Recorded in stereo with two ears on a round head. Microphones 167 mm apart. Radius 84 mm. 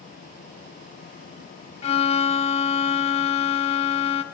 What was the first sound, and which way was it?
A violin, 35° left (ahead or behind).